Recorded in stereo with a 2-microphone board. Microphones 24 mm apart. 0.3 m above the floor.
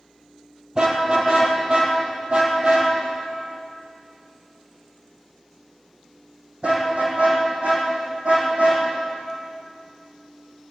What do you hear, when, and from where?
0.8 s a car horn: 30° right (ahead or behind), 3.5 m; by 8.8 s 70° right (ahead or behind), 6.5 m